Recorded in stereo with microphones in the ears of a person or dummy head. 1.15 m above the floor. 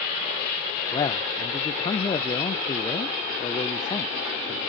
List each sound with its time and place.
0.9 s a man speaking: 20° left (ahead or behind), 0.5 m